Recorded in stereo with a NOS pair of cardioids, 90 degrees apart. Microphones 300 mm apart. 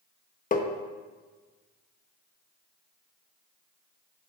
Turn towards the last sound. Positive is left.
turn(degrees=25)